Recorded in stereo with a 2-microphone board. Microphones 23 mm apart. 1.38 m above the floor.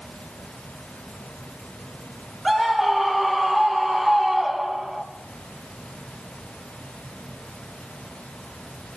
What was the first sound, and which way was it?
A scream, 10° right (ahead or behind).